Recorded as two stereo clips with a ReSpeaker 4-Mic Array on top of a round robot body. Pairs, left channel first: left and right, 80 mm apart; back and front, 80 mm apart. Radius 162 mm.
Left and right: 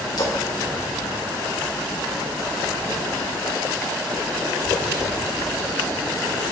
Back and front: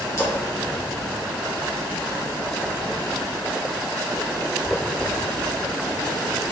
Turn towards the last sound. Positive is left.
turn(degrees=125)